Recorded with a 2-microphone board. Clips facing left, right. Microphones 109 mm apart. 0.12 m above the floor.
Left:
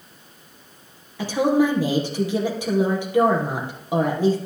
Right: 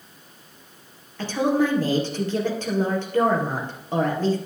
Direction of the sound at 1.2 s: 10° left (ahead or behind).